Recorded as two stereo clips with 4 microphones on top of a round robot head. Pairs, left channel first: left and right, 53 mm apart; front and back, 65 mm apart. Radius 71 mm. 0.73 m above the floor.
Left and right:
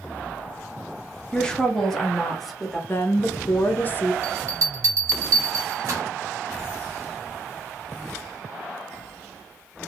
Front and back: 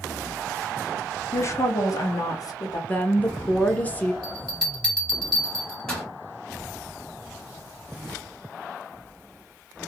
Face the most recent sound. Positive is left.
turn(degrees=-75)